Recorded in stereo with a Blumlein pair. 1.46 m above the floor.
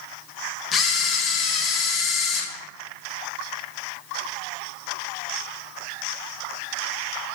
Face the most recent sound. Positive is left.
turn(degrees=20)